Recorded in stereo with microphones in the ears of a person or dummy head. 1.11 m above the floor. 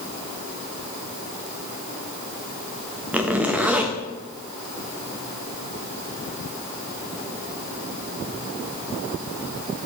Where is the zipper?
5° right (ahead or behind), 0.5 m.